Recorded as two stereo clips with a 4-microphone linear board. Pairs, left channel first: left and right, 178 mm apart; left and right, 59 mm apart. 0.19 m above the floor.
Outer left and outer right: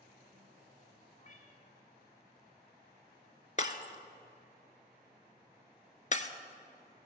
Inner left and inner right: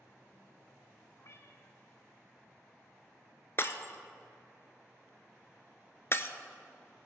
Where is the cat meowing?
50° left (ahead or behind), 1.1 m.